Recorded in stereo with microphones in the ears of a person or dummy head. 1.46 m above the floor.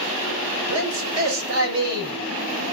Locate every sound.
0.7 s a man speaking: 80° right, 9.5 m